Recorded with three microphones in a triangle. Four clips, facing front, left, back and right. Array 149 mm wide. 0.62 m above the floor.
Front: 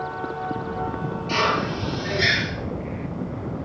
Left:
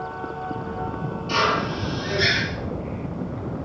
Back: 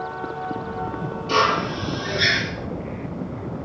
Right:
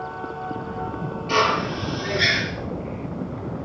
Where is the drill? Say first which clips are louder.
Right 2 dB, back 3 dB; 135° right, 7.5 m.